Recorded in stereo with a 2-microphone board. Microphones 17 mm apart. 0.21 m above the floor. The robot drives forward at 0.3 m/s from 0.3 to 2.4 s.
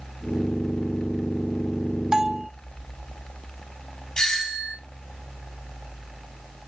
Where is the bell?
45° right (ahead or behind), 0.6 m.